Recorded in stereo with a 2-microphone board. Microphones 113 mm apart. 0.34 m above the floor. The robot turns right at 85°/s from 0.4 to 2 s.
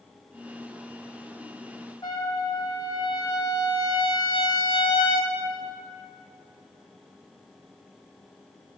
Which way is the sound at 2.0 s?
45° left (ahead or behind).